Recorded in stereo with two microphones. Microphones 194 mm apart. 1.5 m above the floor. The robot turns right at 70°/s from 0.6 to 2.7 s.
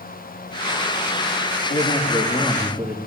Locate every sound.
1.7 s a man speaking: 115° left, 3 m; by 3.0 s 175° right, 3 m